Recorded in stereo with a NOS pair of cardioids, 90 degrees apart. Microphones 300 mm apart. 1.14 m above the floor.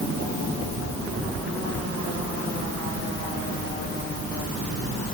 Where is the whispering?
No whispering in this recording.